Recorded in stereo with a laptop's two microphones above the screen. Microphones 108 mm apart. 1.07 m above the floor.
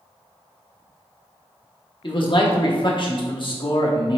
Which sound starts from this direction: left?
A man speaking, at 2.0 s.